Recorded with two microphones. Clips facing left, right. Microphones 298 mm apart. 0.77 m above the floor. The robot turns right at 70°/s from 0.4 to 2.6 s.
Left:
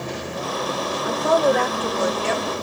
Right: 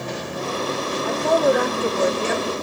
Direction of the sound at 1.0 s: 155° left.